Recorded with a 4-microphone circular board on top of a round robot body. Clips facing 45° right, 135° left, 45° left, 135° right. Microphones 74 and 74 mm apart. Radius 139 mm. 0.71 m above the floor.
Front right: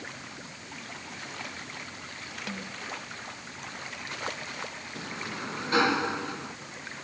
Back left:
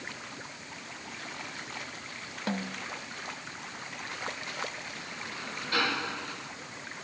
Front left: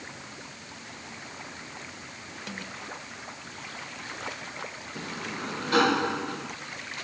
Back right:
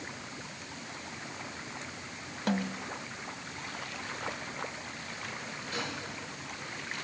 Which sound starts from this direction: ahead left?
A sliding door, at 5.0 s.